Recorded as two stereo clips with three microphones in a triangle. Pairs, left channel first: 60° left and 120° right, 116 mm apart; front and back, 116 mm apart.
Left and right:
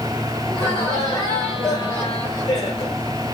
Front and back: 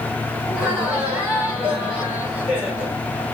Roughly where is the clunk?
I don't hear a clunk.